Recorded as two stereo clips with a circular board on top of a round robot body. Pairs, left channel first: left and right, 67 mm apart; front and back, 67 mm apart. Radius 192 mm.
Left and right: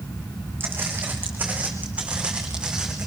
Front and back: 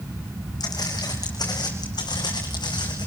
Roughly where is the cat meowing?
No cat meowing in this recording.